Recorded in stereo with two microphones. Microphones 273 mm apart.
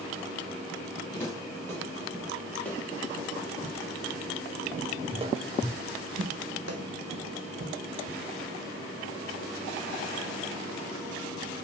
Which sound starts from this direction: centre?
Footsteps, at 1.1 s.